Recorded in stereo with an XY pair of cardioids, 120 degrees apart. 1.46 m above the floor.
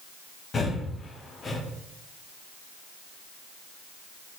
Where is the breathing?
35° left, 0.6 m.